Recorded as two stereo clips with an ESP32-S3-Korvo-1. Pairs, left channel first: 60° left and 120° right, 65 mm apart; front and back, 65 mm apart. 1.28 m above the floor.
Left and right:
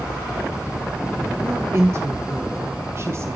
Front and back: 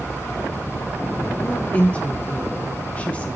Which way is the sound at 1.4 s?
70° right.